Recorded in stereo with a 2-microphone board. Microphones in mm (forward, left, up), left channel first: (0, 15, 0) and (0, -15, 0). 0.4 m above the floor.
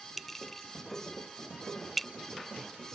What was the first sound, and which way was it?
A clink, 5° left (ahead or behind).